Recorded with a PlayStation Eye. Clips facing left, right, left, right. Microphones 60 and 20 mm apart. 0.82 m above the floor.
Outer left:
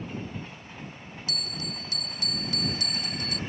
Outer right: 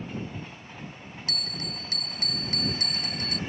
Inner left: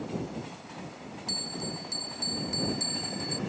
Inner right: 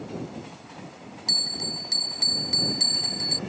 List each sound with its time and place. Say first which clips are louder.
1.3 s a bell: even, inner right 9 dB; 50° right (ahead or behind)